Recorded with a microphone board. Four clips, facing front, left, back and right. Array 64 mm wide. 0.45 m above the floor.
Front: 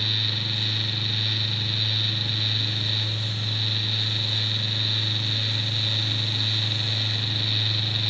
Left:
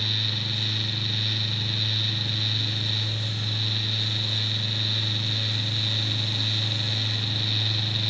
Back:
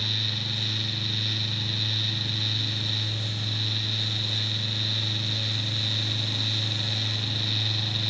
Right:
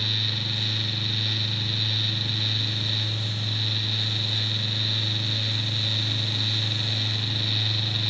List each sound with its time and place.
Only background noise.